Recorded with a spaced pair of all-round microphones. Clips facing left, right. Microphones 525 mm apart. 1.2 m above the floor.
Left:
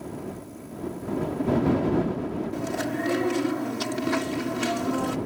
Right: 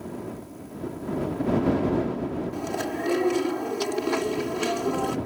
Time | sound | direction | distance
2.5 | chewing | 40° left (ahead or behind) | ?